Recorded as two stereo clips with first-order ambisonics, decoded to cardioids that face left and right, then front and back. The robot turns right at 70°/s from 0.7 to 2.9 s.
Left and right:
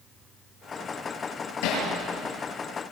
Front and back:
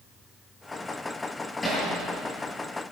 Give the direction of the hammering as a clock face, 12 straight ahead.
9 o'clock.